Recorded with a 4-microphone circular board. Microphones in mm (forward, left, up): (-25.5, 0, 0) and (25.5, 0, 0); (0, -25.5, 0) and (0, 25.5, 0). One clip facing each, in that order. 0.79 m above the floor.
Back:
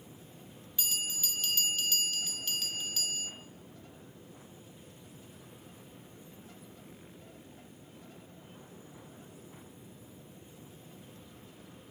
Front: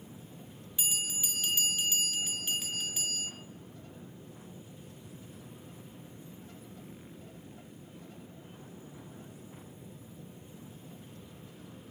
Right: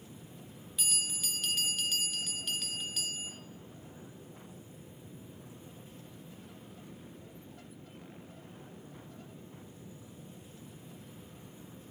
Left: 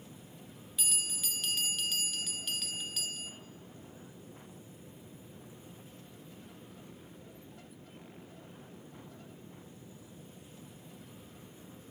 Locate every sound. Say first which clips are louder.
0.8 s a bell: front 1 dB, right 1 dB; 5° right, 0.6 m